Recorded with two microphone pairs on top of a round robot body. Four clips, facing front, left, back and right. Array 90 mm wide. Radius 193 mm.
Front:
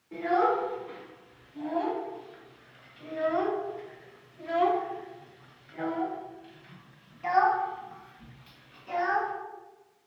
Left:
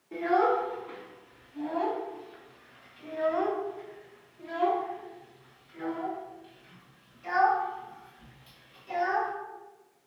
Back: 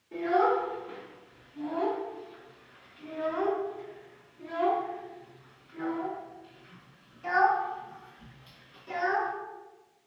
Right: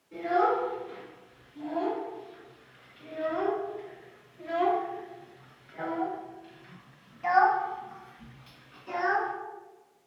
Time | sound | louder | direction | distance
0.1 | a child speaking | left 1 dB, even | 60° left | 3 m